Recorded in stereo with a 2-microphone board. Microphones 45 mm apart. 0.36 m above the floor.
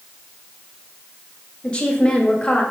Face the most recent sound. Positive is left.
turn(degrees=20)  # may be behind; listen again after turning